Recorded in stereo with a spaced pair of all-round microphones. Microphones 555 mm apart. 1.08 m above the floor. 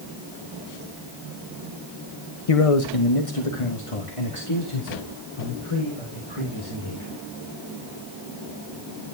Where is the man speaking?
75° left (ahead or behind), 1.0 m; by 7.2 s 55° left (ahead or behind), 5.5 m.